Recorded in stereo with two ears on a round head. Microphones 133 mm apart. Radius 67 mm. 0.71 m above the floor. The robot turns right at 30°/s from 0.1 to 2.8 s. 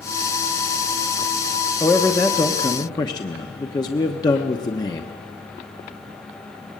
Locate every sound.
1.8 s a man speaking: 5° left (ahead or behind), 1.0 m; by 5.2 s 25° left (ahead or behind), 1.0 m